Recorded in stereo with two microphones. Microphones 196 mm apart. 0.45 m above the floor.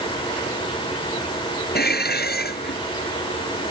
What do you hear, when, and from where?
1.8 s dishes clattering: 55° left (ahead or behind)